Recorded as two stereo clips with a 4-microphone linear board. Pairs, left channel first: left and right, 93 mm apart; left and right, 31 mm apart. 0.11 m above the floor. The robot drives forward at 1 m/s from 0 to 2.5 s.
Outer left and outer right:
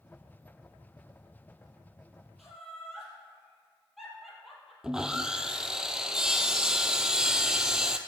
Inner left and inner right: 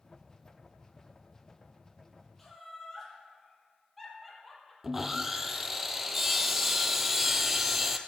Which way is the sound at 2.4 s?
Centre (ahead or behind).